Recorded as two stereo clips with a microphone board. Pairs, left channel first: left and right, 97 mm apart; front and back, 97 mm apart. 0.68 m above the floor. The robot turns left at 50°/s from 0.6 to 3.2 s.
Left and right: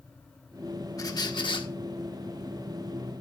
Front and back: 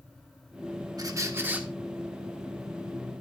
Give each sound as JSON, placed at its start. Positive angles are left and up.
{"t": 1.0, "sound": "a squeak", "azimuth_deg": 140, "distance_m": 1.2}